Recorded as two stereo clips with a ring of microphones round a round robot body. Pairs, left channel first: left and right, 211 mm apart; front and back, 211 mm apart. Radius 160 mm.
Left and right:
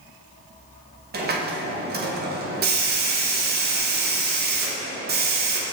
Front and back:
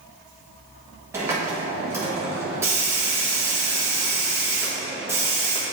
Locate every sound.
1.1 s a hiss: 105° right, 1.1 m